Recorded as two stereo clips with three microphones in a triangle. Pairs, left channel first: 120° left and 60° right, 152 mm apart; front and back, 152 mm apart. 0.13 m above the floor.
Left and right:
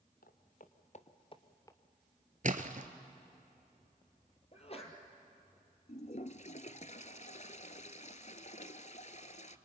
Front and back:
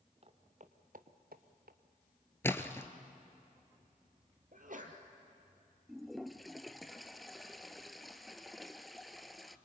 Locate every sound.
0.2 s footsteps: 135° left, 1.9 m; by 1.8 s 170° right, 1.5 m
2.4 s a splash: 75° right, 1.2 m
4.5 s a sneeze: 165° left, 3 m
5.9 s a toilet flushing: 90° left, 0.7 m